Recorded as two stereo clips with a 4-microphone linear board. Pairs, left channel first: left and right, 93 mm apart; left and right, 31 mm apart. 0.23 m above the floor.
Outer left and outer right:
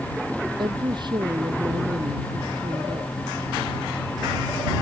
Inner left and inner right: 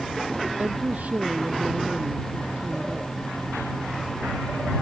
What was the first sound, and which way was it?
A woman speaking, 55° right (ahead or behind).